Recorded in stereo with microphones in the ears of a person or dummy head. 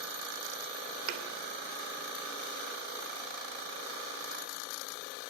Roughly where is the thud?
Right.